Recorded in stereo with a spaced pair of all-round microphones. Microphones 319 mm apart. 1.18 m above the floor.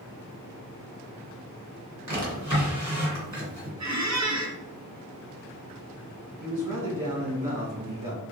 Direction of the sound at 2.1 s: 55° right (ahead or behind).